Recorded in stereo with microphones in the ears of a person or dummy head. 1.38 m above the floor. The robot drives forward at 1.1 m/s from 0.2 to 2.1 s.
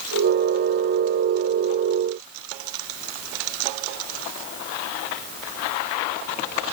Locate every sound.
Only background noise.